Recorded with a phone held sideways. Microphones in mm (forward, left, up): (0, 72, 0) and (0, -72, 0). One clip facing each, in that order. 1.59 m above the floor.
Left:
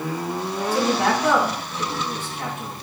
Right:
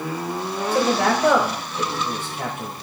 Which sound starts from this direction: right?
A man speaking, at 0.7 s.